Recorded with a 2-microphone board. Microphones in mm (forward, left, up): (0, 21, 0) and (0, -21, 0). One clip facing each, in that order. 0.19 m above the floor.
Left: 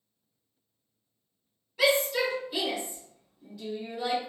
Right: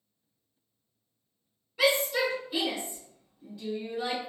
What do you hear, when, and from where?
1.8 s a shout: 5° right (ahead or behind), 1.5 m